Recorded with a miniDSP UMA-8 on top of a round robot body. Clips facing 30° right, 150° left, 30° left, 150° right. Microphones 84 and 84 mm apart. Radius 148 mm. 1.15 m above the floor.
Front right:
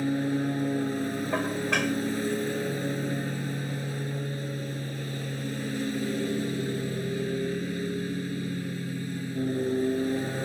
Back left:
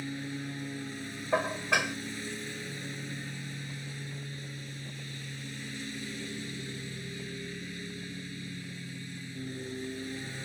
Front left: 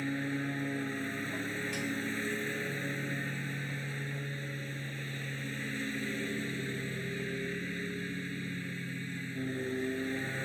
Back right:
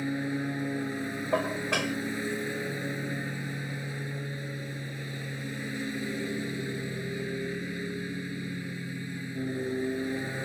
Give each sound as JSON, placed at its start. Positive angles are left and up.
{"t": 0.0, "sound": "a lawn mower", "azimuth_deg": -75}
{"t": 1.3, "sound": "dishes clattering", "azimuth_deg": -130}